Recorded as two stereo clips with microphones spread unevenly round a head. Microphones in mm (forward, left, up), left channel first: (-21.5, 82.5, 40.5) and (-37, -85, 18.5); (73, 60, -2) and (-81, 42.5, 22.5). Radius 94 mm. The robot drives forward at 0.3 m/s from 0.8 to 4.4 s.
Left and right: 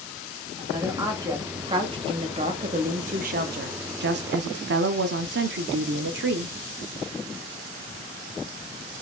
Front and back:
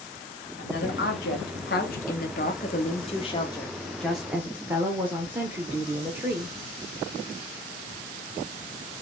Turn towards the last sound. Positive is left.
turn(degrees=-90)